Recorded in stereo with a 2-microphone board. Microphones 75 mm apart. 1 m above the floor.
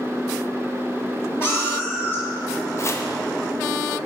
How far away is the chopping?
About 0.8 m.